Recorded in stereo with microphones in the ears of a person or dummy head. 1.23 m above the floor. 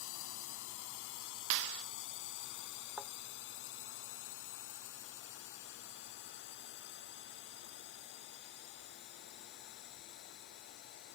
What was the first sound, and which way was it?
A drone, 70° left (ahead or behind).